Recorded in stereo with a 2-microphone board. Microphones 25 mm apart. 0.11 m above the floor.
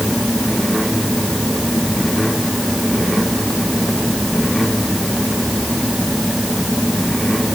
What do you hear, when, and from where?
Only background noise.